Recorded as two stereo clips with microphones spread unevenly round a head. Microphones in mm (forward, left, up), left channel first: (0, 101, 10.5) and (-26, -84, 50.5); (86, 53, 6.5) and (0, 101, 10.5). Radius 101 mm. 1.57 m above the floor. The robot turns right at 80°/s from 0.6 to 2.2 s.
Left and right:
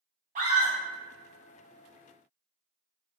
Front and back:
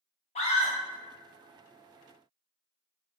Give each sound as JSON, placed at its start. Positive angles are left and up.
{"t": 0.3, "sound": "a scream", "azimuth_deg": -45, "distance_m": 0.8}